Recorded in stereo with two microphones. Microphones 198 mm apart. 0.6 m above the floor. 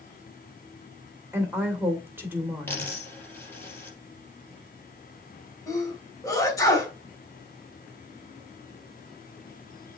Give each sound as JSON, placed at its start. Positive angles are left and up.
{"t": 1.3, "sound": "a woman speaking", "side_deg": -10, "distance_m": 2.5}
{"t": 2.7, "sound": "a dropped coin", "side_deg": 10, "distance_m": 3.5}
{"t": 5.7, "sound": "a sneeze", "side_deg": 15, "distance_m": 2.5}